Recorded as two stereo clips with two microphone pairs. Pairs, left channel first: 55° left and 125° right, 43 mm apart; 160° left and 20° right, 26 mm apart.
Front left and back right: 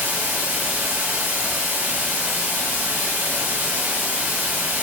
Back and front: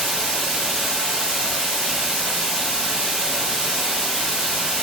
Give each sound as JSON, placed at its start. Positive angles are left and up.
{"t": 0.0, "sound": "running water", "azimuth_deg": -80, "distance_m": 1.4}